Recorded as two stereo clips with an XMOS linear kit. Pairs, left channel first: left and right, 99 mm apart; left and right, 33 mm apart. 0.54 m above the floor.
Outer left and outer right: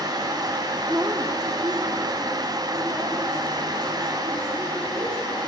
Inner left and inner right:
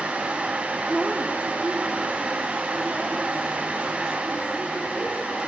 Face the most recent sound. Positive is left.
turn(degrees=-70)  # may be behind; listen again after turning